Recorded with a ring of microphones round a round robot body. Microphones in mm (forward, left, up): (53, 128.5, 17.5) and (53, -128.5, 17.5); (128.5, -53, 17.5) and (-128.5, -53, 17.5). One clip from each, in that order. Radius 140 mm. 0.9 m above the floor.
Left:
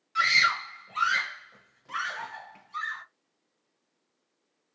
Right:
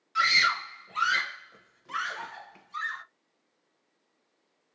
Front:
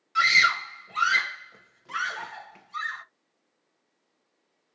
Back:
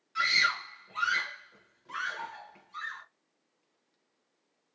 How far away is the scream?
About 0.7 m.